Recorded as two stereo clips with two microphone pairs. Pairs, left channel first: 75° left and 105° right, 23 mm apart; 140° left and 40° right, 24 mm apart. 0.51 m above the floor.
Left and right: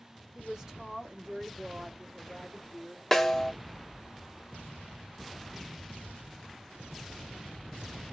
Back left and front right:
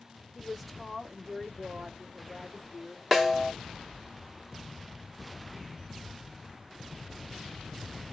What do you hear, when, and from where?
0.3 s a woman speaking: 135° right, 1.4 m; by 3.0 s 5° left, 1.3 m
3.1 s a snare drum: 30° left, 0.8 m